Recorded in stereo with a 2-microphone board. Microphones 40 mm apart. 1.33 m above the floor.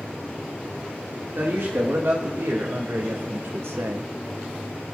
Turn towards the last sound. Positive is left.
turn(degrees=-80)